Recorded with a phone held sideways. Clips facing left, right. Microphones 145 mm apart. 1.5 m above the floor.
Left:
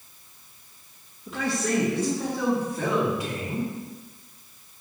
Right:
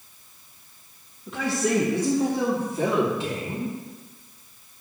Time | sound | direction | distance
1.3 | a man speaking | centre (ahead or behind) | 1.8 m